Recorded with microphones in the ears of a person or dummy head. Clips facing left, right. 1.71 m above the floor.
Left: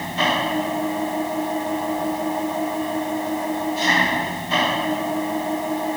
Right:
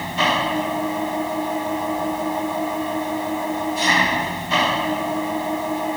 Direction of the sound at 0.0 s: Centre (ahead or behind).